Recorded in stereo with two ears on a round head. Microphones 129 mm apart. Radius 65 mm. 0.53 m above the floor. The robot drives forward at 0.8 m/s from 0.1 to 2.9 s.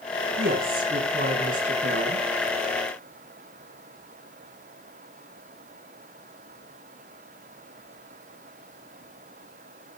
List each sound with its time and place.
0.4 s a woman speaking: 70° right (ahead or behind), 6 m; by 2.3 s 60° right (ahead or behind), 6.5 m